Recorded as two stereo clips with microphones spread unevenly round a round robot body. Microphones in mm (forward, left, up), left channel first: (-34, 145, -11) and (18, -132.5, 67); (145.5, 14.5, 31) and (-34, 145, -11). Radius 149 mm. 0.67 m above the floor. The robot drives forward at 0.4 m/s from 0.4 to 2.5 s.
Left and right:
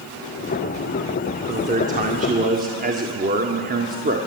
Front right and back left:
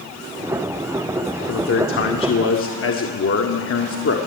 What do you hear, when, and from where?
1.5 s a man speaking: 10° right, 2 m